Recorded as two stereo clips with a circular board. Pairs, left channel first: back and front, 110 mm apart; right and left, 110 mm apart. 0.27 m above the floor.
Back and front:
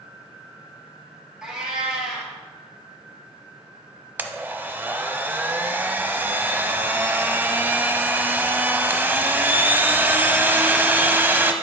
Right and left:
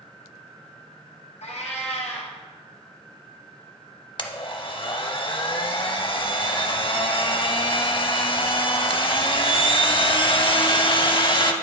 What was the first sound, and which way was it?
A cat meowing, 80° right.